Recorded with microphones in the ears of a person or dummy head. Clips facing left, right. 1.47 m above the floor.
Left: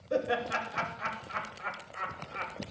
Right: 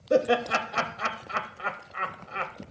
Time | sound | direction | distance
0.1 | laughter | 60° right (ahead or behind) | 0.6 m